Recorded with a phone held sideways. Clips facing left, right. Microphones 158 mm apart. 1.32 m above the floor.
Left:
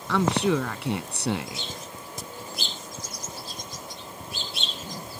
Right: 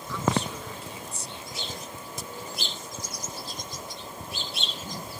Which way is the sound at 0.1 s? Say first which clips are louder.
Left 6 dB; 75° left (ahead or behind).